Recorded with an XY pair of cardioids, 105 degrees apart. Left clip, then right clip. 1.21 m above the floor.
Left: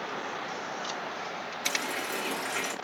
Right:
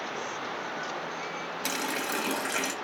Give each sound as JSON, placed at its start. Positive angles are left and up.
{"t": 1.6, "sound": "a running tap", "azimuth_deg": -70, "distance_m": 0.9}